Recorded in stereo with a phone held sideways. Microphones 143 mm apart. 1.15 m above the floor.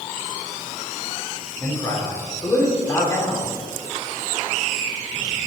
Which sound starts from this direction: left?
A man speaking, at 1.6 s.